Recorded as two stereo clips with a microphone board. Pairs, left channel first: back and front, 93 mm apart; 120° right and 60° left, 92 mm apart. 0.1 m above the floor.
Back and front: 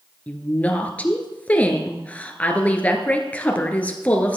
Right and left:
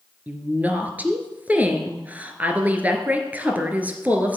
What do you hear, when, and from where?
0.3 s a woman speaking: 120° left, 1.3 m